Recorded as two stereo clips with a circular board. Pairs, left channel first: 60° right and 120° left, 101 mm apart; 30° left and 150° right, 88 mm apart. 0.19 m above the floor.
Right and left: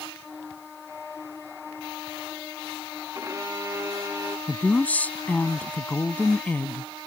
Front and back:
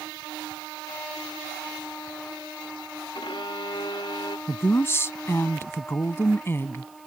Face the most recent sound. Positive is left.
turn(degrees=0)